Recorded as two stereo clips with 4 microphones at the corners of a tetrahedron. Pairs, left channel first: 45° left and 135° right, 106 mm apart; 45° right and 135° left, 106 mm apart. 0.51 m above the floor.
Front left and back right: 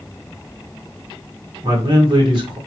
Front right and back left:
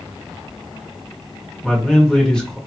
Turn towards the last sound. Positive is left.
turn(degrees=-125)